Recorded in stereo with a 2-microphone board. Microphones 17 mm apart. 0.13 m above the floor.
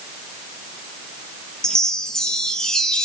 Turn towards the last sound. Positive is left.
turn(degrees=45)  # may be behind; listen again after turning